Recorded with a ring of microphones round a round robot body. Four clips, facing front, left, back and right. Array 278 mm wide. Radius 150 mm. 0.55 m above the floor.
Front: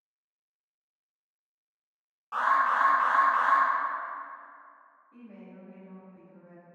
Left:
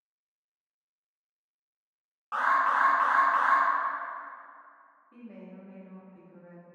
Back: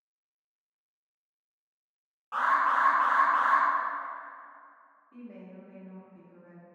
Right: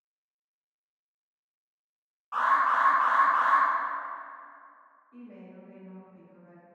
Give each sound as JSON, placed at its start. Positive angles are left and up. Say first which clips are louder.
{"t": 2.3, "sound": "an alarm", "louder": "right 1 dB, front 1 dB", "azimuth_deg": 95, "distance_m": 1.1}
{"t": 5.1, "sound": "a woman speaking", "louder": "left 1 dB, back 2 dB", "azimuth_deg": 115, "distance_m": 1.0}